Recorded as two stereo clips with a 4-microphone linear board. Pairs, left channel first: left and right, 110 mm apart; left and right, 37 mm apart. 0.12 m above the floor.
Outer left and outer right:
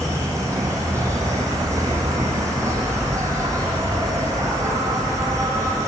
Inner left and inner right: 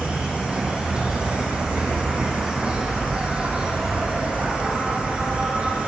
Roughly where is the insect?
Right.